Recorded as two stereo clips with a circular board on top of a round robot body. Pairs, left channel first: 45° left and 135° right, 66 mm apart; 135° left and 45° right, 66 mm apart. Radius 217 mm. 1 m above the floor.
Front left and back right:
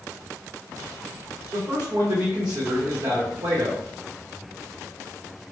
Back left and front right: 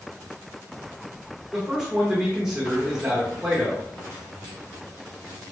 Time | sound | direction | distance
1.5 | a man speaking | 120° right | 0.9 m